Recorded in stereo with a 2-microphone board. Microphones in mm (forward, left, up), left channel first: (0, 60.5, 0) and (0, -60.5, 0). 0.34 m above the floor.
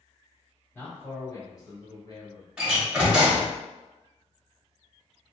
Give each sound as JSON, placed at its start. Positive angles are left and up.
{"t": 0.7, "sound": "a man speaking", "side_deg": 20, "distance_m": 1.4}
{"t": 2.6, "sound": "a door slam", "side_deg": -10, "distance_m": 1.1}